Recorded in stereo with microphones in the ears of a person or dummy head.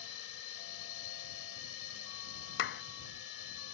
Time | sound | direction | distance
0.0 | a drone | 75° left (ahead or behind) | ?
2.6 | a clap | 60° left (ahead or behind) | ?